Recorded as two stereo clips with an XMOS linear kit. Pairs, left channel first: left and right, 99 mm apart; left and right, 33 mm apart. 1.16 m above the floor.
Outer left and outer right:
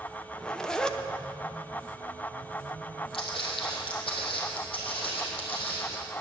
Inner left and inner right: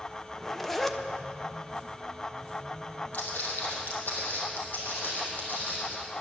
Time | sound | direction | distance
0.3 | a zipper | 5° left (ahead or behind) | 0.6 m
3.1 | footsteps | 60° left (ahead or behind) | 2.5 m